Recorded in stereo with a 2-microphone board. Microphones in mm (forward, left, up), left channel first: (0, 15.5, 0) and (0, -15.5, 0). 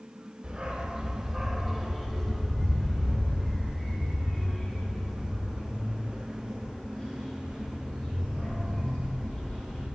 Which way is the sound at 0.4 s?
30° right (ahead or behind).